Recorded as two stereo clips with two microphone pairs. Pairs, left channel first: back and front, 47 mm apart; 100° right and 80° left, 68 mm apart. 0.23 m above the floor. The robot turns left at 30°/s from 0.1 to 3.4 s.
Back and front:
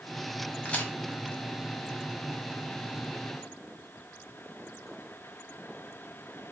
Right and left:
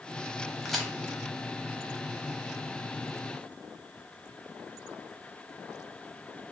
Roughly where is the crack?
Behind.